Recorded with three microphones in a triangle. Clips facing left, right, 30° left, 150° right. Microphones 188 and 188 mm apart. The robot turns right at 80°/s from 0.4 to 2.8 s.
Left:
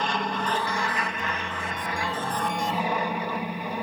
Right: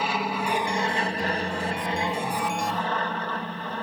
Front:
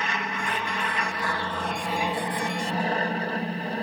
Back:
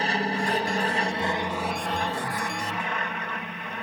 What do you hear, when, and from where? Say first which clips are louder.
0.0 s an aircraft: right 1 dB, back 5 dB; 170° right; by 3.8 s 20° left